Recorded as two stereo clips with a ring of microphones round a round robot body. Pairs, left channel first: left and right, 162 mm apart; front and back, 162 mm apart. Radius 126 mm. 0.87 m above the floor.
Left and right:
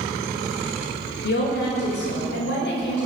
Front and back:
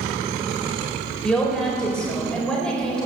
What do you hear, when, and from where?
1.2 s a woman speaking: 85° left, 4 m